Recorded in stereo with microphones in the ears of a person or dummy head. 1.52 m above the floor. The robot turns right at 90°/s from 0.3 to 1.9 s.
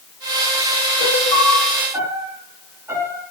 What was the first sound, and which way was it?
A piano, 115° left.